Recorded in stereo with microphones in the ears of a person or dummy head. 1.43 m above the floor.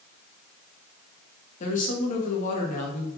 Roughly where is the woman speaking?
Left.